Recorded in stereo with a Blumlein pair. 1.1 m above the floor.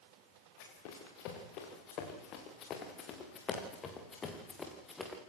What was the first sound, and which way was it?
Running footsteps, 45° left.